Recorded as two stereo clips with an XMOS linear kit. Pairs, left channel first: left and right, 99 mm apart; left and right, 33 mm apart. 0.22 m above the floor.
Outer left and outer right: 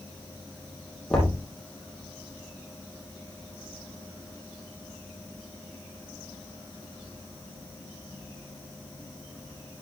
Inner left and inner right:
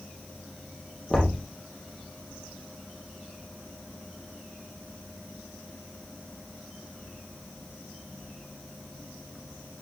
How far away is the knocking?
About 6 m.